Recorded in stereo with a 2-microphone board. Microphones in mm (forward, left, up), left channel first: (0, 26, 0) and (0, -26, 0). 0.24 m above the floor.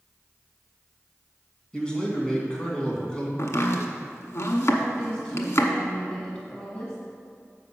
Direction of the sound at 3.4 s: 65° left (ahead or behind).